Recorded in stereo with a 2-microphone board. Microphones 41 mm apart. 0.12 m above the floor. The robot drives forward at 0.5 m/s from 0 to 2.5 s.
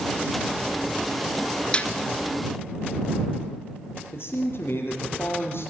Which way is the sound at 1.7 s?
25° left (ahead or behind).